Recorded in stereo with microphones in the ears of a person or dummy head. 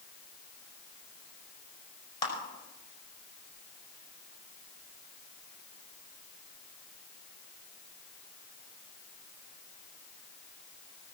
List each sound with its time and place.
2.2 s a clap: 30° left (ahead or behind), 5.5 m